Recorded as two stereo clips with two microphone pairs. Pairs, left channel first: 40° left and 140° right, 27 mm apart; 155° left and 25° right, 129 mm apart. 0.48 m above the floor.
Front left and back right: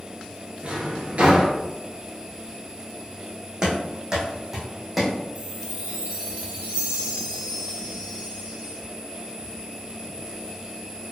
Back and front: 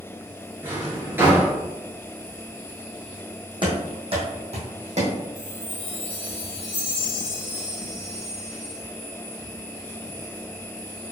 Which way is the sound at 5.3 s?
135° right.